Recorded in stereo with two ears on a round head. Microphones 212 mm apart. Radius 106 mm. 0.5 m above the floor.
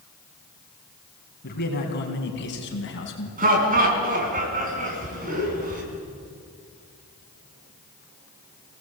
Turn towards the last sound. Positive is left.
turn(degrees=-35)  # may be behind; listen again after turning